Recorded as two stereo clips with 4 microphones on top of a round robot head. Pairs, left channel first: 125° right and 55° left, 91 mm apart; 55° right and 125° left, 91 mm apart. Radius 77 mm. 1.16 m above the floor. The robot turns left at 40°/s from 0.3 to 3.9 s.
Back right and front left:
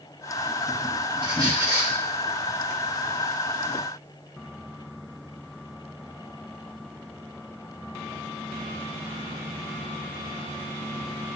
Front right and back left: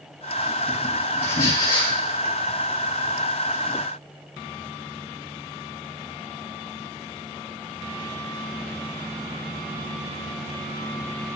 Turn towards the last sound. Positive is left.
turn(degrees=-95)